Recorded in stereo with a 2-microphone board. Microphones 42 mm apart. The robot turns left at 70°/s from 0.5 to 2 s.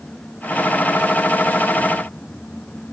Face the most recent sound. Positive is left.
No sound to turn to.